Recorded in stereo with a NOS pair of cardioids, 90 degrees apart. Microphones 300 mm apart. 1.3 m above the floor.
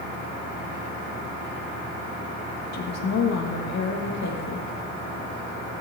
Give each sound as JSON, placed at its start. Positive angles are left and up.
{"t": 2.7, "sound": "a woman speaking", "azimuth_deg": 60, "distance_m": 1.8}